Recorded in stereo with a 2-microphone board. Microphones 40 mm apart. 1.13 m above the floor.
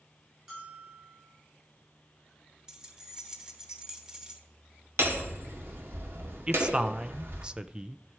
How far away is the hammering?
About 1.6 m.